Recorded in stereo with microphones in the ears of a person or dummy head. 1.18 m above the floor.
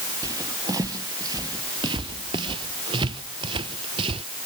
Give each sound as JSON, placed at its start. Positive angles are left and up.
{"t": 0.2, "sound": "footsteps", "side_deg": -20}